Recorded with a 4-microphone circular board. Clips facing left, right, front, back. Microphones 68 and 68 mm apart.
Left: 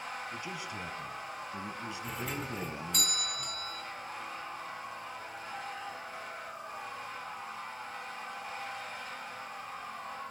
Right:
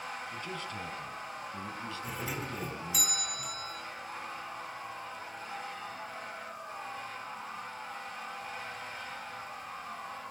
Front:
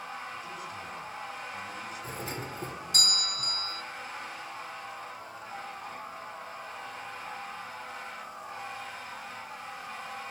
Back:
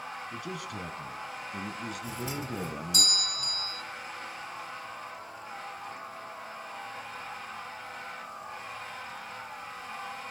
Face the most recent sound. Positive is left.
turn(degrees=-5)